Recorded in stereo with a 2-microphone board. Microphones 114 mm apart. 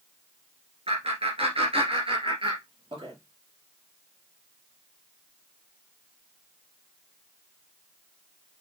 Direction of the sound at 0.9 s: 60° right (ahead or behind).